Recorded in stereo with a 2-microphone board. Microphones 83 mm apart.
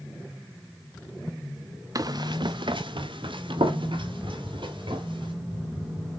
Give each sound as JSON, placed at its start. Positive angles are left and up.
{"t": 1.9, "sound": "running footsteps", "side_deg": -45, "distance_m": 0.9}